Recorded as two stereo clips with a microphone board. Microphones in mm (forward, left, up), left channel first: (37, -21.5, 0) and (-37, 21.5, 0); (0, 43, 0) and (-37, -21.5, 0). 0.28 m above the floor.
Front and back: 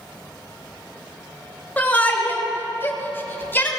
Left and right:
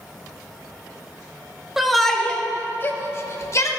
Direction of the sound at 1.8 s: 45° right.